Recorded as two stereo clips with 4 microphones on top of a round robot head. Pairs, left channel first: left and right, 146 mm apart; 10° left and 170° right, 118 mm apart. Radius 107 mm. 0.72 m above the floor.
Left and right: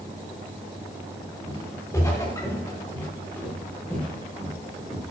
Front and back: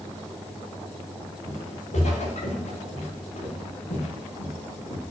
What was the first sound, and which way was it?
Footsteps, 20° left.